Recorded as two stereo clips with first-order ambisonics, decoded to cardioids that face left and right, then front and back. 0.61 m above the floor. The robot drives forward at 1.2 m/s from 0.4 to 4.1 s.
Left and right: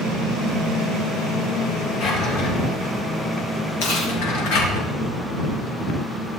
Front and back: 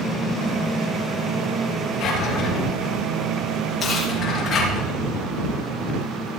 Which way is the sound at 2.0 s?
50° left.